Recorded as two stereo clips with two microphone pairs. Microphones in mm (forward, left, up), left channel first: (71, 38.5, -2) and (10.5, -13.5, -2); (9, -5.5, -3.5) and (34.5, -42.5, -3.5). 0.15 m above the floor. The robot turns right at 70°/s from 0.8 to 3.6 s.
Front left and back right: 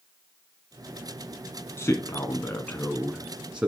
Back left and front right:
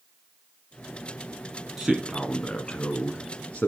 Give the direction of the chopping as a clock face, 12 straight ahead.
I don't hear chopping.